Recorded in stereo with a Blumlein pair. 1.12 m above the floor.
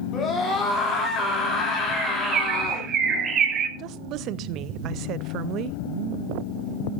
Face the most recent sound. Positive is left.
turn(degrees=-35)